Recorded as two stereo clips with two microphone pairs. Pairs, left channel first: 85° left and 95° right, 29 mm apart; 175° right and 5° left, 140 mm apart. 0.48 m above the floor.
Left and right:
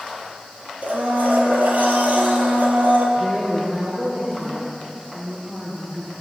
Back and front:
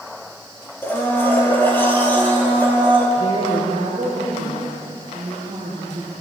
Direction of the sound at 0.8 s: 100° right.